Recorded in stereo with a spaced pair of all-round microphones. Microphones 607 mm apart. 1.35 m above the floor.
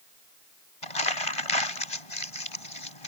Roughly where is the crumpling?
Left.